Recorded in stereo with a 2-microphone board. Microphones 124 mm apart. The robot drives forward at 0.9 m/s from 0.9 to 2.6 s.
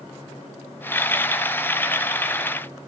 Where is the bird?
No bird in this recording.